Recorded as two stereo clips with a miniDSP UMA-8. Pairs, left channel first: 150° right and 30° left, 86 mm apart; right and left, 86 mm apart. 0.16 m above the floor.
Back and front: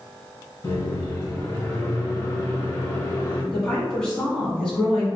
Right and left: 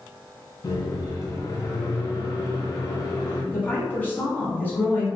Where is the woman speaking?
85° right, 1.2 m.